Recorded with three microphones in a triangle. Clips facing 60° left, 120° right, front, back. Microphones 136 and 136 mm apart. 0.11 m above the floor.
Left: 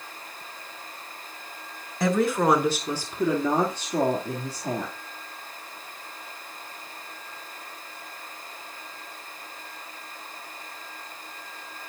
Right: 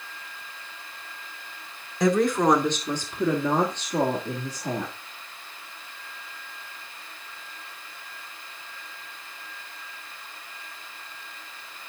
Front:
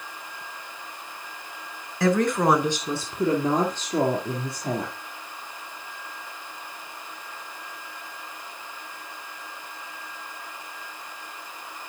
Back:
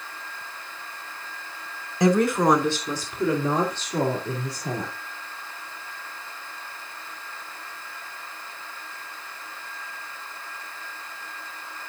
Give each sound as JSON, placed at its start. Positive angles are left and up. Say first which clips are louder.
{"t": 2.0, "sound": "a woman speaking", "louder": "right 2 dB, back 2 dB", "azimuth_deg": 145, "distance_m": 1.1}